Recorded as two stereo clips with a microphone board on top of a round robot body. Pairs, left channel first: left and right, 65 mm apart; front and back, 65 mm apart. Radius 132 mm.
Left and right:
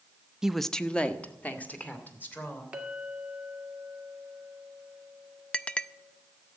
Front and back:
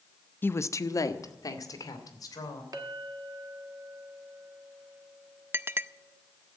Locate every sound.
0.4 s a woman speaking: 15° right, 0.6 m; by 2.6 s 25° left, 3.5 m
2.7 s a clink: 165° right, 1.8 m
5.5 s a clink: 155° left, 0.6 m